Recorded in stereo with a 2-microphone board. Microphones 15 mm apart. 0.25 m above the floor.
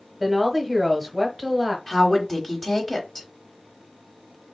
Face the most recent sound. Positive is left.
turn(degrees=20)  # may be behind; listen again after turning